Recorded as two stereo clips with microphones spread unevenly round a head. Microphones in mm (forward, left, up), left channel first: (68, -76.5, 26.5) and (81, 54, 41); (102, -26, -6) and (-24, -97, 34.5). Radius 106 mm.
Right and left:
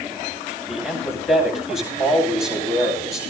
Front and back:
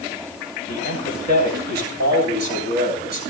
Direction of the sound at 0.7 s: 155° right.